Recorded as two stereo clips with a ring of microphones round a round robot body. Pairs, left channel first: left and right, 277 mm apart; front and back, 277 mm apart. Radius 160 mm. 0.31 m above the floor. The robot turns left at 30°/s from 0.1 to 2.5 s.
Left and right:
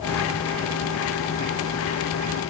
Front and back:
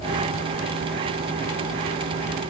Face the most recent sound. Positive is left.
No sound to turn to.